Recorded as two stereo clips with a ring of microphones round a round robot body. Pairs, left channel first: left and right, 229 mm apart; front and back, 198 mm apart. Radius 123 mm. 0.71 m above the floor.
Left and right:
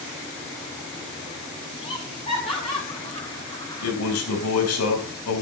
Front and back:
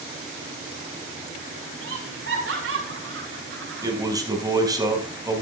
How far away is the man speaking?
About 4 m.